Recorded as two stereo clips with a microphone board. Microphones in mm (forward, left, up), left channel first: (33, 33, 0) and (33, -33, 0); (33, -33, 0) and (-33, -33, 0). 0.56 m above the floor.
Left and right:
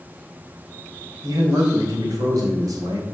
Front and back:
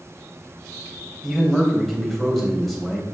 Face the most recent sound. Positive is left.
turn(degrees=-90)